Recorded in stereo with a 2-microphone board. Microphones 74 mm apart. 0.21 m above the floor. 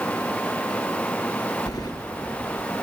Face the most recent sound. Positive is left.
turn(degrees=65)  # may be behind; listen again after turning